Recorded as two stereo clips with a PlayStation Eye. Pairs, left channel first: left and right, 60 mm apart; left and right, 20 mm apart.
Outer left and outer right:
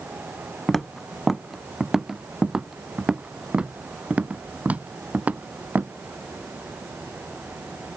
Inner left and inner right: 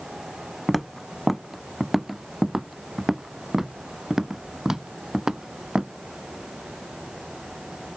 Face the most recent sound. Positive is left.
turn(degrees=-30)  # may be behind; listen again after turning